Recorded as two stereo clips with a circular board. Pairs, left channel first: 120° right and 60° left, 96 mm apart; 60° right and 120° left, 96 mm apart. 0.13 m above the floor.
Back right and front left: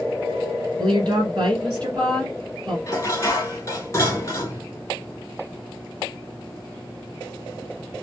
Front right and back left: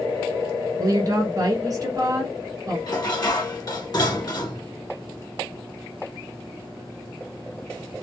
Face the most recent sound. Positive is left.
turn(degrees=-75)